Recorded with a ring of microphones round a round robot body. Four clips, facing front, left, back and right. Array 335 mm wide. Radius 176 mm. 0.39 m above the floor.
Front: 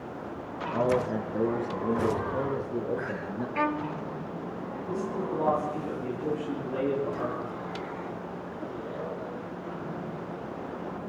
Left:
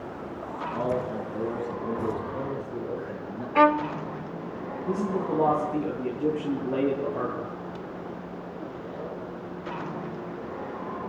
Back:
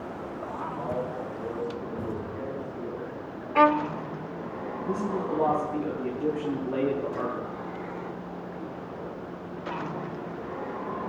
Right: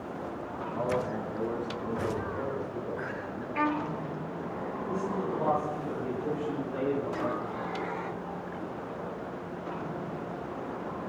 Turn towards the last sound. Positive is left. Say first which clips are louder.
# left 6 dB, back 2 dB
turn(degrees=110)